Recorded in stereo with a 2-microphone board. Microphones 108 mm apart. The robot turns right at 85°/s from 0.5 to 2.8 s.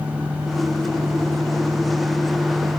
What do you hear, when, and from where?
Only background noise.